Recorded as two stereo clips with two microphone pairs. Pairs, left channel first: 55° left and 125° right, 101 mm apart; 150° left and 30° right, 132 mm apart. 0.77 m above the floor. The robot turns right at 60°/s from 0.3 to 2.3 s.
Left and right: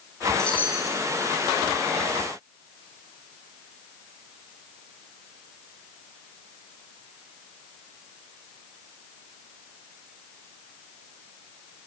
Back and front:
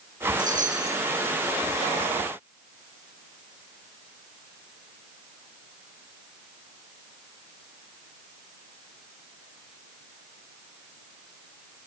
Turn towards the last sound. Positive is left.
turn(degrees=85)